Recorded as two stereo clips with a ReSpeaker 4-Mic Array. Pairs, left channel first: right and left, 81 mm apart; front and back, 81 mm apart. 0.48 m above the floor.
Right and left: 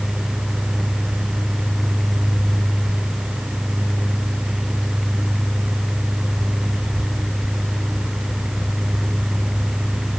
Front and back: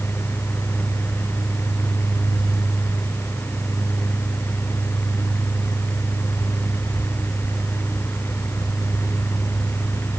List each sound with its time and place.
Only background noise.